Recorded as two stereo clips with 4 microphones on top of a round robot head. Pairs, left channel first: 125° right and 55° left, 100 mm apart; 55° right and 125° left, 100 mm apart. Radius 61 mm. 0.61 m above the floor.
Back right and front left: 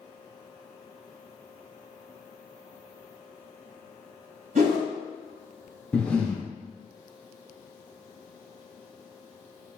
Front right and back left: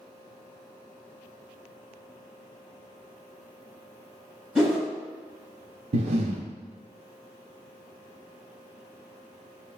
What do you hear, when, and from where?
4.5 s a whoosh: 35° left, 2.0 m
5.9 s breathing: 155° left, 0.5 m